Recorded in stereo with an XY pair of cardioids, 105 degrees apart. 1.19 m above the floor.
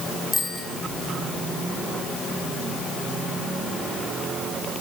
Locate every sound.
0.3 s a bicycle bell: 25° left, 7.5 m